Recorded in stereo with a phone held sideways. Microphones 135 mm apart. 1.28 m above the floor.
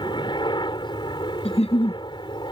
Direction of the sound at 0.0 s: 35° left (ahead or behind).